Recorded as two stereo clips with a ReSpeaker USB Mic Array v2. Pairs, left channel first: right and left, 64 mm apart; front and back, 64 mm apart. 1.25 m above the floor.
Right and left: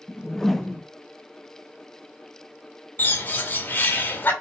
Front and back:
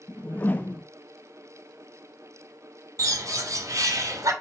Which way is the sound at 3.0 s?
150° right.